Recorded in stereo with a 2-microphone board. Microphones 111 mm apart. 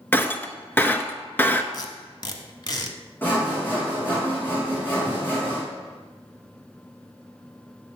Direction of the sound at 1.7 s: 40° left (ahead or behind).